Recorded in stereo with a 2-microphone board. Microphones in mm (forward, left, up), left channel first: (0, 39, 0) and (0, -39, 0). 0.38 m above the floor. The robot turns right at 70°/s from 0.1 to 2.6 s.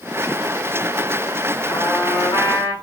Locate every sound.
1.7 s a trumpet: 30° left, 2.0 m; by 2.7 s 95° left, 2.0 m